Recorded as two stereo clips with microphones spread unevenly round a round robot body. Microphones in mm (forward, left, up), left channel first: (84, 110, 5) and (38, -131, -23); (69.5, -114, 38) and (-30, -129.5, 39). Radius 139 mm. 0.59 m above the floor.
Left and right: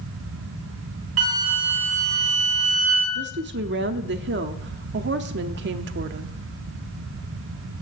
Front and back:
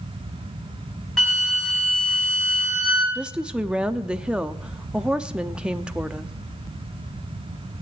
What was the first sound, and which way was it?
A flute, 75° right.